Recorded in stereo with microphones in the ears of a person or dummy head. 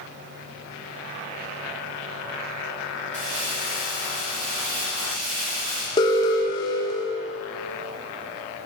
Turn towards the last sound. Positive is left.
turn(degrees=25)  # may be behind; listen again after turning